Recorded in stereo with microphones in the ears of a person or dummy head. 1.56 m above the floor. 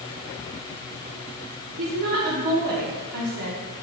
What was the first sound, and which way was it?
A woman speaking, 60° right (ahead or behind).